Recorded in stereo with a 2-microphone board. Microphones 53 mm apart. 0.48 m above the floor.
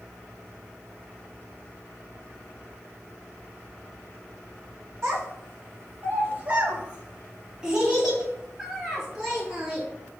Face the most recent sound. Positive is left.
turn(degrees=-5)  # may be behind; listen again after turning